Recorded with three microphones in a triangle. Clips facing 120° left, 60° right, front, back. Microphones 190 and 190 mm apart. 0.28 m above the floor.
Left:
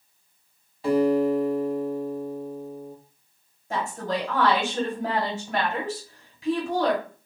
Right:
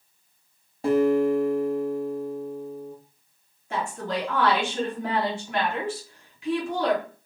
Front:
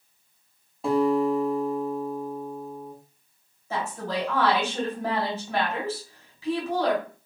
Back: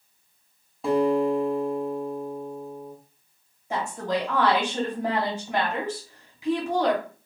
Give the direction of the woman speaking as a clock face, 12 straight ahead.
8 o'clock.